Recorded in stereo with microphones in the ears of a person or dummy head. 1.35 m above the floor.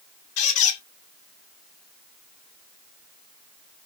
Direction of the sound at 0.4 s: 35° left (ahead or behind).